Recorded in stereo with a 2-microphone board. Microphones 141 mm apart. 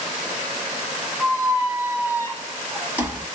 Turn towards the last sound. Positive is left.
turn(degrees=-15)  # may be behind; listen again after turning